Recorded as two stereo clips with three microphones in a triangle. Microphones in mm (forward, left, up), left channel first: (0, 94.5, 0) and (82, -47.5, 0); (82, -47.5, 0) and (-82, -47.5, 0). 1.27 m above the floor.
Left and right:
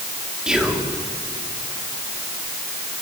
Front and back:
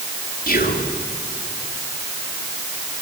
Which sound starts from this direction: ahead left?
Whispering, at 0.5 s.